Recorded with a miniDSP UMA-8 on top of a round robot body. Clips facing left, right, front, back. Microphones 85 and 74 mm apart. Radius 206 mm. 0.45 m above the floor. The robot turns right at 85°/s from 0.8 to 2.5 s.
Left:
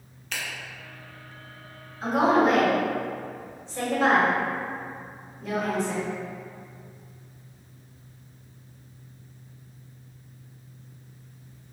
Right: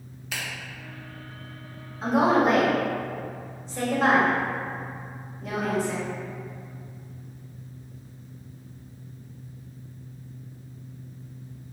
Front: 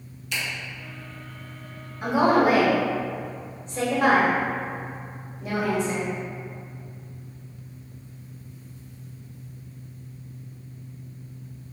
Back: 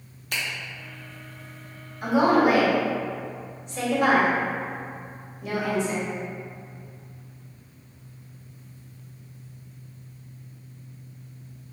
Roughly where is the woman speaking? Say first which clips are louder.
Even, even; ahead right.